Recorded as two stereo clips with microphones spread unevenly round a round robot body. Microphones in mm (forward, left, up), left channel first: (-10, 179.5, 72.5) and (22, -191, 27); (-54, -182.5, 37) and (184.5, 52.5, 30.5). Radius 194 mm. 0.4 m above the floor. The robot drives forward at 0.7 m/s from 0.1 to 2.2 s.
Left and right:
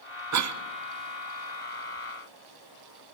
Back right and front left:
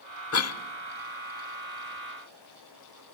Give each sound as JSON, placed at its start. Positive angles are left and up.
{"t": 0.3, "sound": "a cough", "azimuth_deg": -100, "distance_m": 1.4}